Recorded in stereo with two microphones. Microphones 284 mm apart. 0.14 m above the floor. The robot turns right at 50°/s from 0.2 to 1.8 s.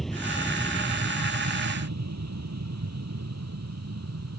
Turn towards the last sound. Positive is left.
turn(degrees=-60)  # may be behind; listen again after turning